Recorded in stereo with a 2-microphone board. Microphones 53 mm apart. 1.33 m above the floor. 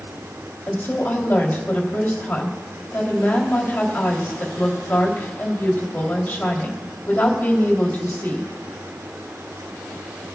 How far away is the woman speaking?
About 3 m.